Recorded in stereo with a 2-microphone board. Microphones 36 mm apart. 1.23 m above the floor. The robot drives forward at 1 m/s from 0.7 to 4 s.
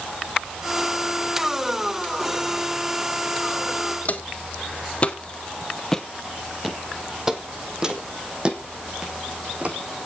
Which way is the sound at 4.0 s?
45° left (ahead or behind).